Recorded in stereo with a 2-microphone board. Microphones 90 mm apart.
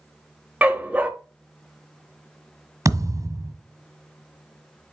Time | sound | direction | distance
0.6 | a dog barking | 15° right (ahead or behind) | 0.7 m
2.9 | a thud | 45° right (ahead or behind) | 1.4 m